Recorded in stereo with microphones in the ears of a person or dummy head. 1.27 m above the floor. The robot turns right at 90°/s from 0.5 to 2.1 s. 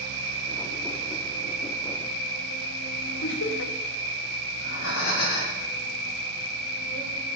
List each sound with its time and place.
0.0 s an insect: 100° right, 4.5 m; by 7.3 s 40° left, 4.5 m
3.2 s laughter: 65° left (ahead or behind), 1.7 m
4.5 s breathing: 80° left, 5.5 m